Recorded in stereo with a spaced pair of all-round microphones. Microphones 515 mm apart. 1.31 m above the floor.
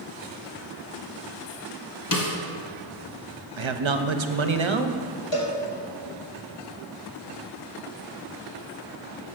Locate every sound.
2.1 s a snare drum: 40° left (ahead or behind), 0.9 m
3.6 s a man speaking: 65° right (ahead or behind), 0.6 m
5.3 s a cowbell: 55° left (ahead or behind), 1.4 m